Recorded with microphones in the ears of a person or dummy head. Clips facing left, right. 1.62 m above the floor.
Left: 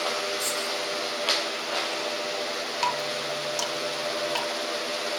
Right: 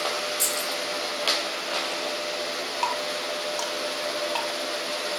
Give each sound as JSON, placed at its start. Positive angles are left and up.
{"t": 0.4, "sound": "keys jangling", "side_deg": -35, "distance_m": 5.5}
{"t": 2.8, "sound": "dripping", "side_deg": 25, "distance_m": 1.7}